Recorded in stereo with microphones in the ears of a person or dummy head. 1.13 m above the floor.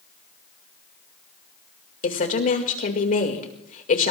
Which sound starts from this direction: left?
A woman speaking, at 2.0 s.